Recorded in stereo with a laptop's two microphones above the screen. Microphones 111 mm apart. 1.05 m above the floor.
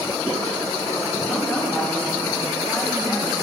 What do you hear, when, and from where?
1.2 s a woman speaking: 10° left (ahead or behind), 2.5 m